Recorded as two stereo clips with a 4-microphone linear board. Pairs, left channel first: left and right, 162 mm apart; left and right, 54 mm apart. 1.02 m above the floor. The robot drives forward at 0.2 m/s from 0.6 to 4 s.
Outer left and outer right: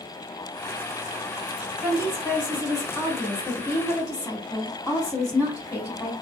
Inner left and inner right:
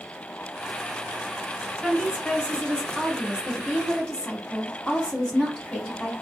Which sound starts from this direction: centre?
A woman speaking, at 1.8 s.